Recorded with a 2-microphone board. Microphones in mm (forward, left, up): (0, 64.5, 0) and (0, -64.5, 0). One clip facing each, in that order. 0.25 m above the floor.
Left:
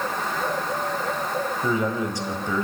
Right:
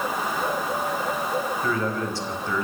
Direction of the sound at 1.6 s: 15° left (ahead or behind).